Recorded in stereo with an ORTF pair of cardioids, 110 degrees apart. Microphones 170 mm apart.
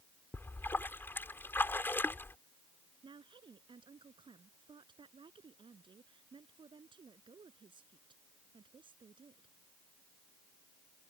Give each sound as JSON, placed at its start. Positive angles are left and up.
{"t": 0.3, "sound": "a splash", "azimuth_deg": 10}
{"t": 3.0, "sound": "a woman speaking", "azimuth_deg": -30}